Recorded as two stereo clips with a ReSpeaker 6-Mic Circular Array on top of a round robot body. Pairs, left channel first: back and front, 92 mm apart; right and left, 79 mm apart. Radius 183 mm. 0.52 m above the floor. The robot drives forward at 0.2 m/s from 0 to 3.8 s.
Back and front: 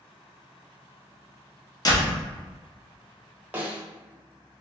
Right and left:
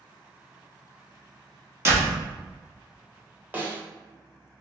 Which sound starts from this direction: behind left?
A door slam, at 1.9 s.